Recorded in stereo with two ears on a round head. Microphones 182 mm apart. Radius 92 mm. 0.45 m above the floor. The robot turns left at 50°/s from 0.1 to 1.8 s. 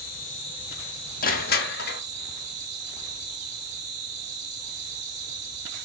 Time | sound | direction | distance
0.0 | an insect | 45° left | 8 m
1.2 | crushing | 45° left (ahead or behind) | 1.2 m